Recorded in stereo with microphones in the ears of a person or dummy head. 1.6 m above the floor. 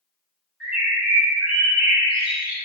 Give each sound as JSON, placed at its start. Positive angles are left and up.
{"t": 0.6, "sound": "a bird", "side_deg": -10, "distance_m": 1.6}